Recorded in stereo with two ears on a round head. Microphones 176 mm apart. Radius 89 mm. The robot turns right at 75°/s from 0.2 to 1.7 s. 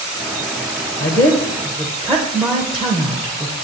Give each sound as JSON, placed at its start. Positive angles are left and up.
{"t": 1.0, "sound": "a woman speaking", "side_deg": 45, "distance_m": 0.8}